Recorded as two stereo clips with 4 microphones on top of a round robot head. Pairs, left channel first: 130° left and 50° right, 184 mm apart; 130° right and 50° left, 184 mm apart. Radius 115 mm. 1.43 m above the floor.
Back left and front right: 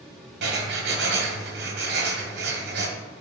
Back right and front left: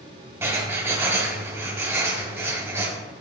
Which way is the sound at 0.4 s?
25° right.